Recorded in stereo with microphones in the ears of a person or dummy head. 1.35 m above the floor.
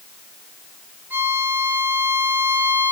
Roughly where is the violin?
Centre.